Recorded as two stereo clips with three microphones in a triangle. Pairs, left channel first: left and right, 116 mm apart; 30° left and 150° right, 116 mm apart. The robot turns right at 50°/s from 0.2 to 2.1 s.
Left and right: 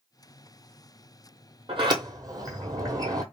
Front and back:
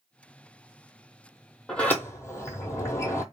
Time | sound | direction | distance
1.7 | a sliding door | 55° right | 0.6 m